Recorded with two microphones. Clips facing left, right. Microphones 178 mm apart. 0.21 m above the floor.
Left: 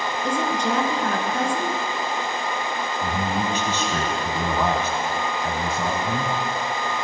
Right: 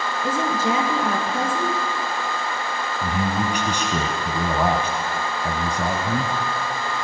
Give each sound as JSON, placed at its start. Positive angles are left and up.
{"t": 0.2, "sound": "a woman speaking", "side_deg": -5, "distance_m": 3.5}
{"t": 3.0, "sound": "a man speaking", "side_deg": -15, "distance_m": 1.8}